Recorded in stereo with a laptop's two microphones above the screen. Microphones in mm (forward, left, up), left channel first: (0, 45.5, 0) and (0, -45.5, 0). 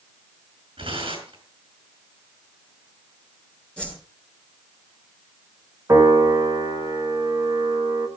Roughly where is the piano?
Right.